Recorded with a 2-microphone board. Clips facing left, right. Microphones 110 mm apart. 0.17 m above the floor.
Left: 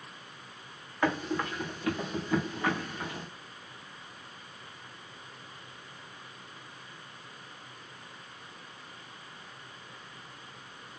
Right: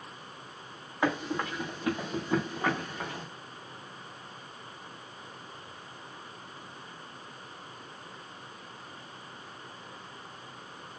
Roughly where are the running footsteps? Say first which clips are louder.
Even; centre.